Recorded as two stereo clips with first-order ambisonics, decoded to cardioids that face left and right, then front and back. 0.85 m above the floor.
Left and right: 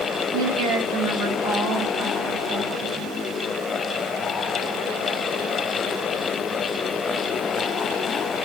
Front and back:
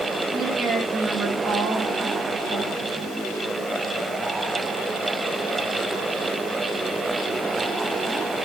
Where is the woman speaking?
95° right, 1.2 m.